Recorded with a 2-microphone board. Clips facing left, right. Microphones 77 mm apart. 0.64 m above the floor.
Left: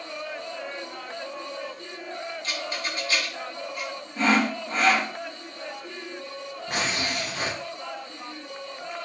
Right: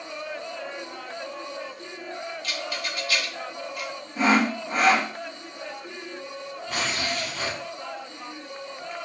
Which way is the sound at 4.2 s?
10° right (ahead or behind).